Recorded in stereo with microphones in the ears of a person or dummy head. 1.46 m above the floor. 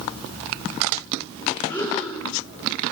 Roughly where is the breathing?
Centre.